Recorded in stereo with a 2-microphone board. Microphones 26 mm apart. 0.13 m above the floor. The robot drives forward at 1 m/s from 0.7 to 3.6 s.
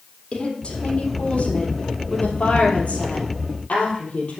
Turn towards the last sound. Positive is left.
turn(degrees=60)  # may be behind; listen again after turning